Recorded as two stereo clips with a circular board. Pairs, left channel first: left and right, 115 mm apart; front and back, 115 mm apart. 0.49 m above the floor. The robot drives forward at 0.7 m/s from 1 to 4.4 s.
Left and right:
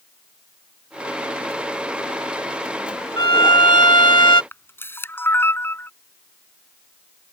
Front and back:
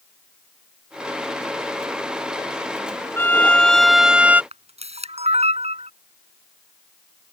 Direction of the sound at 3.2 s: 60° left.